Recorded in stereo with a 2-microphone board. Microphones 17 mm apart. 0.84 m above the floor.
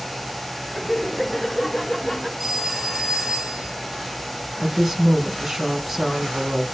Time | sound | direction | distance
0.7 | laughter | centre (ahead or behind) | 4.5 m
2.4 | a phone ringing | 10° right (ahead or behind) | 10 m
4.6 | a woman speaking | 15° right (ahead or behind) | 7 m